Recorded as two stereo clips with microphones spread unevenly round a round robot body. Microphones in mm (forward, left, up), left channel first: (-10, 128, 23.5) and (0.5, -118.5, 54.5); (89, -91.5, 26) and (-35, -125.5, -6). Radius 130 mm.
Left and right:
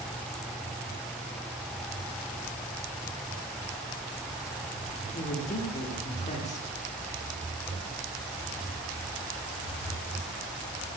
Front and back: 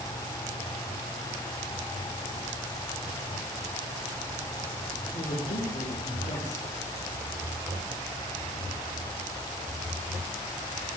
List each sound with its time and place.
5.1 s a woman speaking: 50° left, 1.5 m